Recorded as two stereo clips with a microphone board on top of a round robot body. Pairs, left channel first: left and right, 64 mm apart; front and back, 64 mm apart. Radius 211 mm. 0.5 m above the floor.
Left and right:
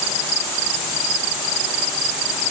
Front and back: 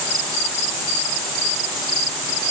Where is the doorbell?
No doorbell in this recording.